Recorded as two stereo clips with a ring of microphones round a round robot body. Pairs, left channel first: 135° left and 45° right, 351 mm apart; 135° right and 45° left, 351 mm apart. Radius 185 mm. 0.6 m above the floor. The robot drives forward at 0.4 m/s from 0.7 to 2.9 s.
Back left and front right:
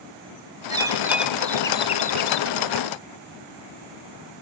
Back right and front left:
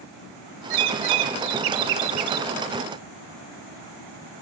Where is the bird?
35° left, 0.9 m; by 2.5 s 90° left, 0.6 m.